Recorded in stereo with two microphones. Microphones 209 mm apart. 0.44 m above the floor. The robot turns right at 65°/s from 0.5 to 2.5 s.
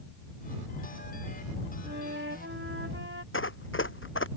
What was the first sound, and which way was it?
A flute, 125° right.